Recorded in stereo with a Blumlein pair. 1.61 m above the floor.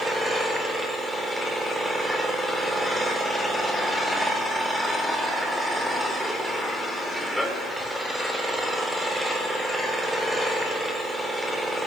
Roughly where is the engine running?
Ahead.